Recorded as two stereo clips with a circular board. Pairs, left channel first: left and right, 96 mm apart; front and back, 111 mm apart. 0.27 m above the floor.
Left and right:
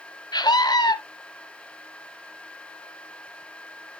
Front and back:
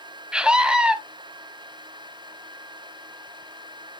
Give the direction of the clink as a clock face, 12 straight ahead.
No clink in this recording.